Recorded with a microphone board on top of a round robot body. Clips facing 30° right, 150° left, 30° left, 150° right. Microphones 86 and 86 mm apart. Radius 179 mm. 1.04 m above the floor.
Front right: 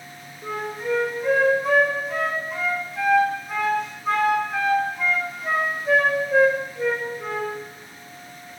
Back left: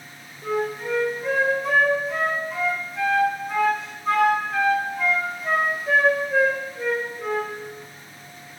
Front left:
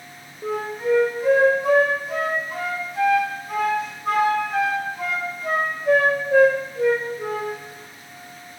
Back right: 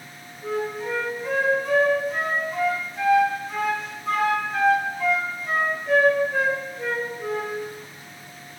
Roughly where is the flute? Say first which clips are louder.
Back left 2 dB, front left 3 dB; ahead left.